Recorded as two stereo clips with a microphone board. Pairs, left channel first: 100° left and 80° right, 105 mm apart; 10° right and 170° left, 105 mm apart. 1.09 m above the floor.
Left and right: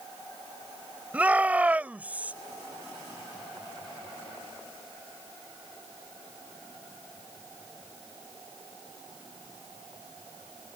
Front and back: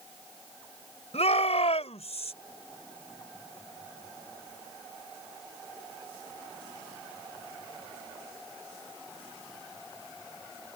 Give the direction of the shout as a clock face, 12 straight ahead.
12 o'clock.